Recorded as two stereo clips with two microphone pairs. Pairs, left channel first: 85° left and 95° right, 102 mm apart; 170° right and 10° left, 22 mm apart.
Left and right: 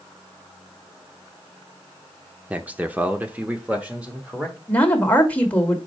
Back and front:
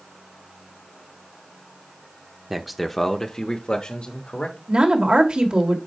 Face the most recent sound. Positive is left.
turn(degrees=15)